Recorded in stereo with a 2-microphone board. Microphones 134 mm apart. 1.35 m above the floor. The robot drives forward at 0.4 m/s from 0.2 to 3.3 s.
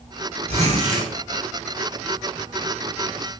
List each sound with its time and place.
0.5 s a zipper: 50° right (ahead or behind), 0.9 m; by 1.1 s 65° right (ahead or behind), 0.8 m